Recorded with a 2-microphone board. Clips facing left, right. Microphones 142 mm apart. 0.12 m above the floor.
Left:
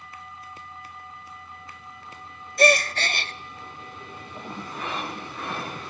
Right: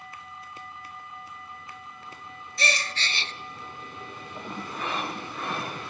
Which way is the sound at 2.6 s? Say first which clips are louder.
Left 12 dB; 55° left (ahead or behind).